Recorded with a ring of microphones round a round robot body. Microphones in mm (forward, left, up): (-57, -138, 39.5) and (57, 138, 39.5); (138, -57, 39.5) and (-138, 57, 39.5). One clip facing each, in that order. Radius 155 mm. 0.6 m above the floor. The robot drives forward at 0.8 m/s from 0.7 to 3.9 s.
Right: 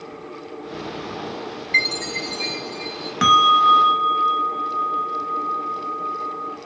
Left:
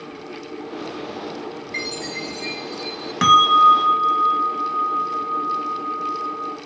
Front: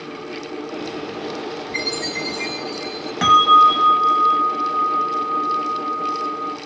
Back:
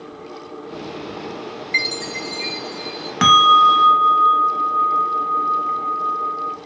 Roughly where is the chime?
Behind.